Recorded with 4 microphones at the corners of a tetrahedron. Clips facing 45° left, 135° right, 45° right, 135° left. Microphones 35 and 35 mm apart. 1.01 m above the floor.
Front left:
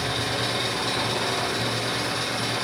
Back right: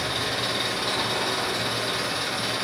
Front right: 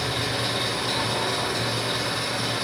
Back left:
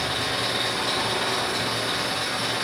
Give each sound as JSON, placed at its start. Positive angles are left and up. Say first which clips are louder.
{"t": 0.0, "sound": "an engine running", "louder": "even, back left 1 dB", "azimuth_deg": 145, "distance_m": 1.1}